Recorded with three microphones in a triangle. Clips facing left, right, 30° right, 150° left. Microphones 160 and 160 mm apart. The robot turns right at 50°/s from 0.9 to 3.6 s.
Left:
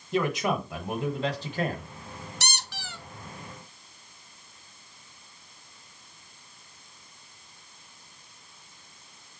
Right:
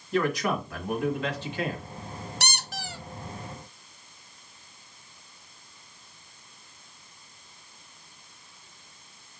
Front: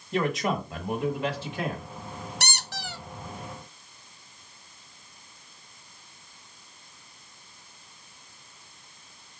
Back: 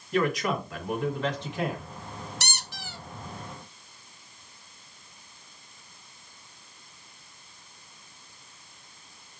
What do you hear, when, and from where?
0.1 s a man speaking: 25° left, 1.3 m; by 1.8 s 75° left, 1.3 m
2.4 s a squeak: 60° right, 0.7 m; by 3.0 s 30° right, 0.7 m